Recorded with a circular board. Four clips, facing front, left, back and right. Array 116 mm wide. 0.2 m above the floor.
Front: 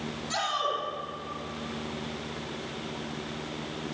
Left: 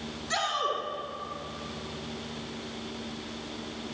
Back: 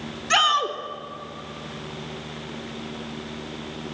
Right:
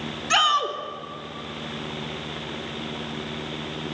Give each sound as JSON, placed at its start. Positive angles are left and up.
{"t": 0.3, "sound": "a shout", "azimuth_deg": -130, "distance_m": 2.0}